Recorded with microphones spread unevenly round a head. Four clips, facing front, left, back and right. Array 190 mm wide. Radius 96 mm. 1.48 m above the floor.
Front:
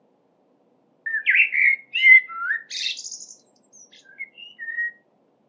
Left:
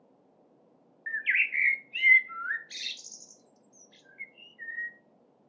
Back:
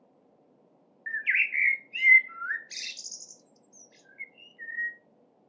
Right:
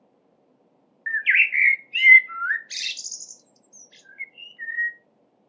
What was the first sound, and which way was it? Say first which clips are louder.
A bird: right 8 dB, front 7 dB; 55° right.